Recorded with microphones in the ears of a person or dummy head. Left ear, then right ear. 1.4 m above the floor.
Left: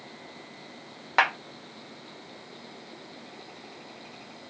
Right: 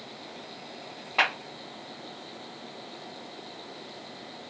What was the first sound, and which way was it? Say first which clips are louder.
A clap: left 2 dB; 50° left (ahead or behind).